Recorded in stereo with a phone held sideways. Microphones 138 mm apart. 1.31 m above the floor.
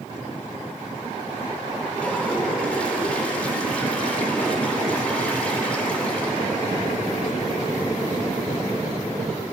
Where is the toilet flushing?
10° left (ahead or behind), 3 m.